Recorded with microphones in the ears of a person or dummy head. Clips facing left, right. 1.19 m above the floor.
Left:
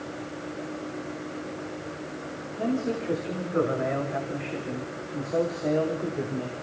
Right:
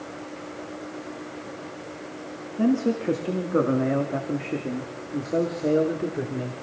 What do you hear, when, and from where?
2.6 s a man speaking: 70° right (ahead or behind), 2.5 m; by 6.5 s 20° right (ahead or behind), 3.5 m